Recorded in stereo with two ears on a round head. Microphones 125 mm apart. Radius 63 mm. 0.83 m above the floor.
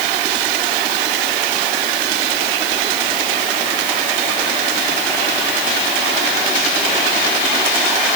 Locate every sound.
Only background noise.